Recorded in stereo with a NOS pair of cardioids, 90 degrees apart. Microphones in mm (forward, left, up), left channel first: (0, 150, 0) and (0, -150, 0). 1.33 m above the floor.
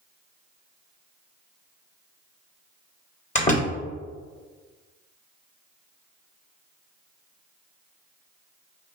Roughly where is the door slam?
Ahead left.